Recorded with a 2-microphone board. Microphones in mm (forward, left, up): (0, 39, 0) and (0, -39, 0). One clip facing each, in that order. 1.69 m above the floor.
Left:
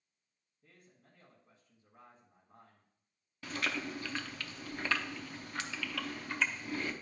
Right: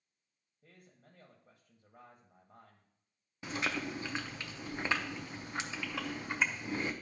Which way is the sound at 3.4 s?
20° right (ahead or behind).